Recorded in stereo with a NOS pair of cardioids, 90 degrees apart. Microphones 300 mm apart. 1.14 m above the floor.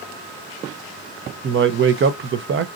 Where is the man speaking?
45° right, 0.7 m.